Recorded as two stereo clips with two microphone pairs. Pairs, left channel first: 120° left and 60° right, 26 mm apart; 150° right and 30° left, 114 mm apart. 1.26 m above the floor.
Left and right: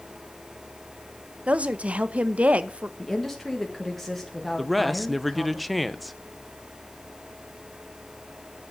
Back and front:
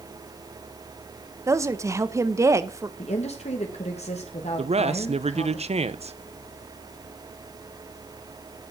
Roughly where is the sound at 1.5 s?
Ahead right.